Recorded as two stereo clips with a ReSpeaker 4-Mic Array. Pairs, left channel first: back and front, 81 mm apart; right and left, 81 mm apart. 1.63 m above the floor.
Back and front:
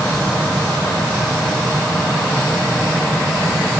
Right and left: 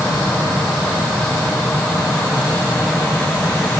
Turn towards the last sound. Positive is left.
No sound to turn to.